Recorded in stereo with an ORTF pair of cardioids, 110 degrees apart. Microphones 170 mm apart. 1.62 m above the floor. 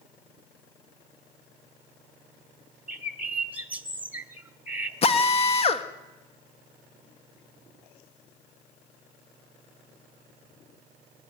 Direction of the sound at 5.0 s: 35° left.